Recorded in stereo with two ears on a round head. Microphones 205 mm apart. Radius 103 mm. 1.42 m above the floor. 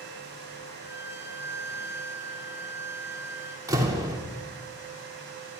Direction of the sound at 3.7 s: 15° right (ahead or behind).